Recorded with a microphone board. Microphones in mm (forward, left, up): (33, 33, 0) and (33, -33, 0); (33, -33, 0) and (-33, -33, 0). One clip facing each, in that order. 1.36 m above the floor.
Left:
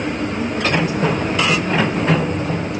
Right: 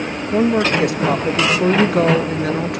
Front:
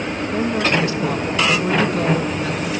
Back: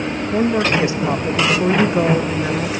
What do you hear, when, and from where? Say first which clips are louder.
0.3 s a woman speaking: right 7 dB, back 2 dB; 110° right, 1.3 m